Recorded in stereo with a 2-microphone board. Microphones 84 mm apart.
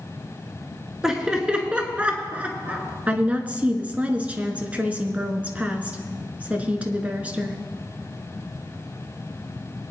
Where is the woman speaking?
15° right (ahead or behind), 1.1 m.